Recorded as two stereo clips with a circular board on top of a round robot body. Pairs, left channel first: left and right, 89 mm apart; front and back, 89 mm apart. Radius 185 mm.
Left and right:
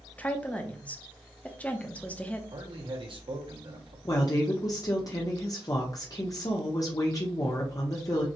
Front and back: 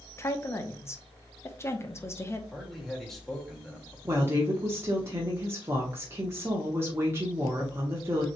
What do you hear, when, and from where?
0.2 s a woman speaking: 30° left, 1.1 m
2.5 s a man speaking: 85° right, 2 m
4.0 s a woman speaking: 125° left, 1.2 m